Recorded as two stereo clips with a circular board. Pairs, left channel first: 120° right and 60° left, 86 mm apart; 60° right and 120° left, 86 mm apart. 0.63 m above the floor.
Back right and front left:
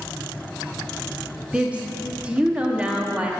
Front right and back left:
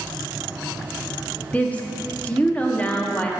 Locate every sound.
1.5 s a woman speaking: straight ahead, 0.9 m